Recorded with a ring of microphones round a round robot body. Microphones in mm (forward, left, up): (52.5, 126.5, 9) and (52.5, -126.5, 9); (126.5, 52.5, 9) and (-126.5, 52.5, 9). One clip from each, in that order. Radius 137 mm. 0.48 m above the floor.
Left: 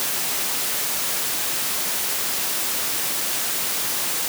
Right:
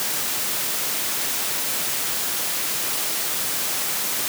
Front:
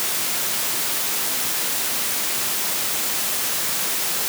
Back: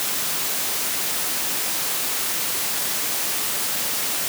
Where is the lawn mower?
I don't hear a lawn mower.